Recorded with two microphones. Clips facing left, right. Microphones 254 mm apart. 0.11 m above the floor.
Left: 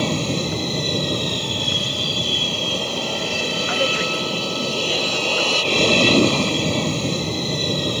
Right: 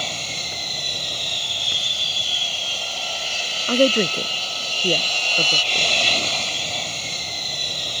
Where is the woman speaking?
45° right (ahead or behind).